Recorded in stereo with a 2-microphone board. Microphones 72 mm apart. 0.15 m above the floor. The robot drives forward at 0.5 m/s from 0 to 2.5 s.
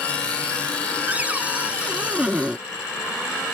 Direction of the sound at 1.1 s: 20° right (ahead or behind).